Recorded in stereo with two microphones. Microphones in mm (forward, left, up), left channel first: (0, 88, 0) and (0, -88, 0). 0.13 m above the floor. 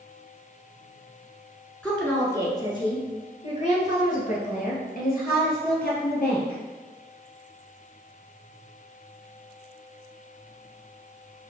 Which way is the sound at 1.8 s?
5° left (ahead or behind).